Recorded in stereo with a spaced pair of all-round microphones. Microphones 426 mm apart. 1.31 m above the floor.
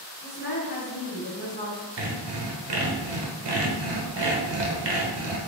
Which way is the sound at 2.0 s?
70° right (ahead or behind).